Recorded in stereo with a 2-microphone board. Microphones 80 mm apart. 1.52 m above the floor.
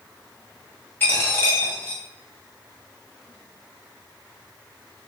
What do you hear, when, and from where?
1.0 s a dropped coin: 25° left (ahead or behind), 1.5 m